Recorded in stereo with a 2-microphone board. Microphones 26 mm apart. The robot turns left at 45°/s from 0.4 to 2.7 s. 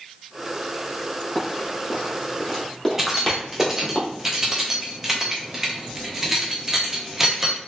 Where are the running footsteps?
15° left (ahead or behind), 2.0 m.